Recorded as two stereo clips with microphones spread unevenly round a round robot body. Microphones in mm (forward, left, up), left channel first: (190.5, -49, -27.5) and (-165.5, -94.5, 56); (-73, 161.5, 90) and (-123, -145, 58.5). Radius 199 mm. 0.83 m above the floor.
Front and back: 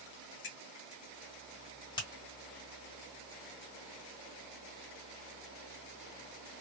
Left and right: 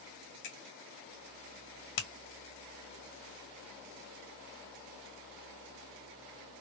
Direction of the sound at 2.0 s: 80° left.